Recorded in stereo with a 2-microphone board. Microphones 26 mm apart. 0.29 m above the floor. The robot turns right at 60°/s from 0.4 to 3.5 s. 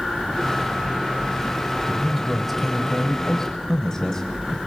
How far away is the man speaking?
About 1.2 m.